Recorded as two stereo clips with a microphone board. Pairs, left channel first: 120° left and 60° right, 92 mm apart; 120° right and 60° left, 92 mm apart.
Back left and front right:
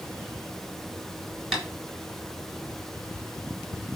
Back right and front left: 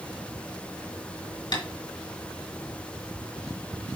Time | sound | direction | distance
1.5 | tapping | 150° right | 3.5 m